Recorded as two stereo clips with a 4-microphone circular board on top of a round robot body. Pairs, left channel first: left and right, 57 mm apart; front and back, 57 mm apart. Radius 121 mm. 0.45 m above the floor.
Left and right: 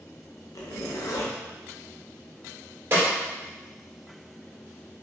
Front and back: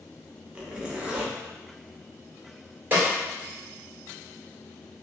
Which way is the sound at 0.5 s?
110° left.